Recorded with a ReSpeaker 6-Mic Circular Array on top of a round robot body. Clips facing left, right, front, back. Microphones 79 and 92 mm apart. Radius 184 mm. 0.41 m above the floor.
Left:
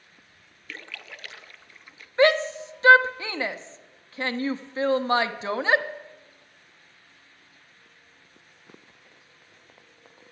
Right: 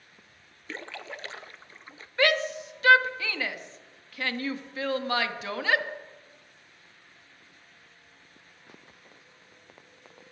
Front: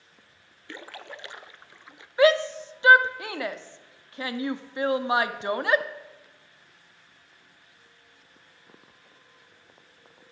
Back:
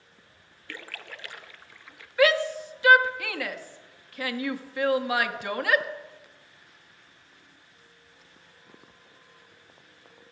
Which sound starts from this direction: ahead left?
A shout, at 2.2 s.